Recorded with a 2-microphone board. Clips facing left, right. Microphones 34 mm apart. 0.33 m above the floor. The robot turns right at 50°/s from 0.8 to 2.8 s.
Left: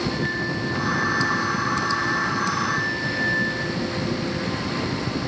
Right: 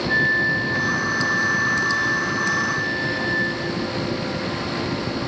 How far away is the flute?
About 6.5 m.